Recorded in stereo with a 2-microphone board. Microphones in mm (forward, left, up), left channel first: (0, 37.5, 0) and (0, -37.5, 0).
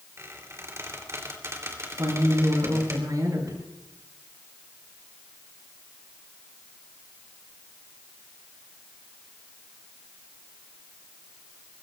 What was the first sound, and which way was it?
A squeak, 40° right (ahead or behind).